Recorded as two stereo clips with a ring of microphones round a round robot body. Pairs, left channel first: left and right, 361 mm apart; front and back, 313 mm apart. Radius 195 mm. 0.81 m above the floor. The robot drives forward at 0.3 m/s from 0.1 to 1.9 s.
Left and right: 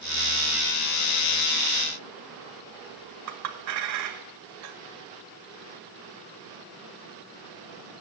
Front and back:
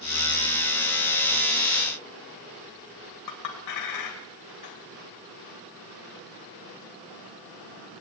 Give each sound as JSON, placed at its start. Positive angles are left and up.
{"t": 3.3, "sound": "a clink", "azimuth_deg": -45, "distance_m": 2.0}